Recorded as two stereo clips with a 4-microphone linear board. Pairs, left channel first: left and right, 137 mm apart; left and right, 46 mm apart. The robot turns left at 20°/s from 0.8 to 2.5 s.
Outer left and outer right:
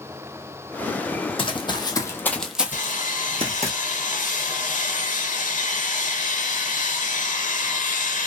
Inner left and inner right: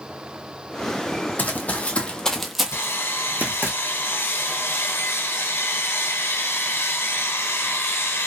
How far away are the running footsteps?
About 0.8 m.